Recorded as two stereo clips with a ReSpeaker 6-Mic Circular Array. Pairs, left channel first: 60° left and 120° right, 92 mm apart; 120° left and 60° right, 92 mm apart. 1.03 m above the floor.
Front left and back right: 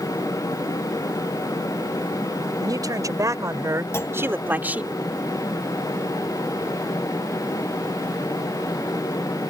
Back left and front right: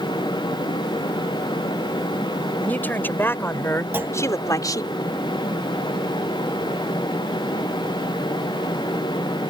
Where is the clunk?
5° left.